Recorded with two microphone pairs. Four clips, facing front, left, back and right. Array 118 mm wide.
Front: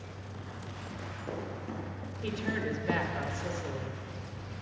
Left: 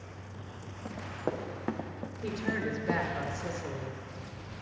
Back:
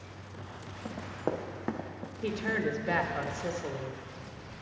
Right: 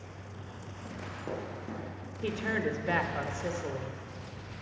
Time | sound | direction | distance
0.8 | running footsteps | 150° left | 2.5 m
2.2 | a woman speaking | 130° right | 0.9 m